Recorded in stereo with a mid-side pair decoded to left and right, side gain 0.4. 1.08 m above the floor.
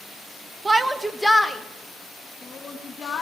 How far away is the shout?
About 0.6 m.